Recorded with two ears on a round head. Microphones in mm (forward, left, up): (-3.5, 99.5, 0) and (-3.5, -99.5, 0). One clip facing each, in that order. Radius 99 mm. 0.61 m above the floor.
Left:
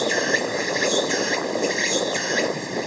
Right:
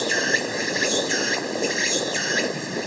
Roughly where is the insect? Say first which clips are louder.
Left 3 dB; centre.